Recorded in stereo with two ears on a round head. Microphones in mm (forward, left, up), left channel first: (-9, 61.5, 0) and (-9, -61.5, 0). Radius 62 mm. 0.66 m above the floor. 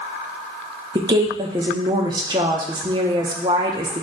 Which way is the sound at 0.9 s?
30° right (ahead or behind).